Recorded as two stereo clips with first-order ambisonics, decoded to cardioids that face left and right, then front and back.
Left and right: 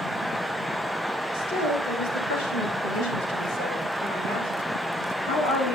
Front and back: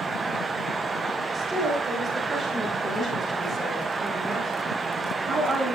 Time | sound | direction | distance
1.3 | a woman speaking | 105° left | 9.5 m